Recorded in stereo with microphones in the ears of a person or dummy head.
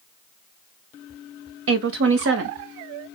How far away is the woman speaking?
About 0.6 m.